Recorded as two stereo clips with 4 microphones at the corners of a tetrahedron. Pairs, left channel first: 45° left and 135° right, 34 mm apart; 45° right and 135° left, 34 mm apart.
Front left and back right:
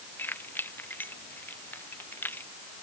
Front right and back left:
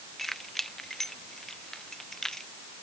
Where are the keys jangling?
35° left; by 2.5 s 30° left.